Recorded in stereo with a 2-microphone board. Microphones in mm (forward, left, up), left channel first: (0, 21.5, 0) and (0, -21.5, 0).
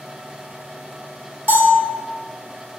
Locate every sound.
1.5 s a bell: 45° right (ahead or behind), 0.7 m